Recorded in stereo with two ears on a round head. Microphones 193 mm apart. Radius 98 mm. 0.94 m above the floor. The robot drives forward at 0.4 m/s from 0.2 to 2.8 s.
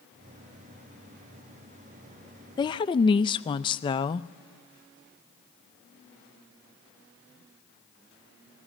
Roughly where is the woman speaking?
Centre.